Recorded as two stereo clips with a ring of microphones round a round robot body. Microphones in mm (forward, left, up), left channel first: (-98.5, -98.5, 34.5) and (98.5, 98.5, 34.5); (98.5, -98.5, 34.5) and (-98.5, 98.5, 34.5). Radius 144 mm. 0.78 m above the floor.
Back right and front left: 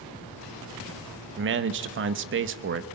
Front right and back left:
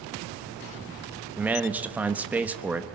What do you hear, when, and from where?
1.4 s a man speaking: 55° left, 1.2 m